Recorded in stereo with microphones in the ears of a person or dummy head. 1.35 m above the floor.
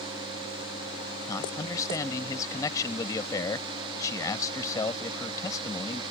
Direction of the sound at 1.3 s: 15° left (ahead or behind).